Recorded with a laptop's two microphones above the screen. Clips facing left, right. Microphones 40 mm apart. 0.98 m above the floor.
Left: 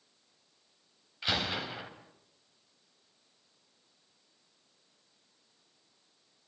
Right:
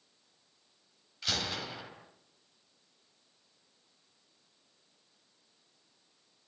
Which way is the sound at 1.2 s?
20° left (ahead or behind).